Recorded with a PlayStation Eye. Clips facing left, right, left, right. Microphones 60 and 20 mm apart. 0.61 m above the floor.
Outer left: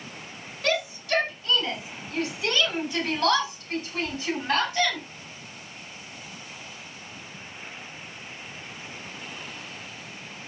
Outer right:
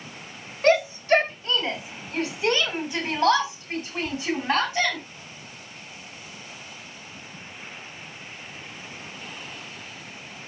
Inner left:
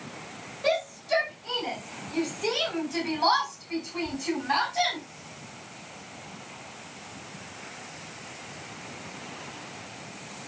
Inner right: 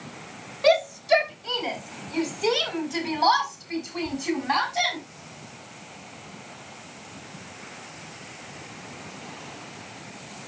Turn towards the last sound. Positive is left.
turn(degrees=-15)  # may be behind; listen again after turning